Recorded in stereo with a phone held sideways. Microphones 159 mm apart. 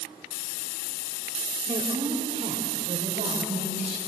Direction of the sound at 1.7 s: 35° right (ahead or behind).